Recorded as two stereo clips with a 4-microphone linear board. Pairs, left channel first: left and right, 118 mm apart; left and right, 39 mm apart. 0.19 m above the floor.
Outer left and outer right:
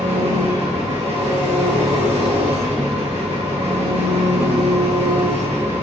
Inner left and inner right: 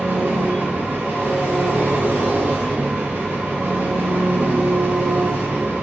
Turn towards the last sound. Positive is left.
turn(degrees=-65)  # may be behind; listen again after turning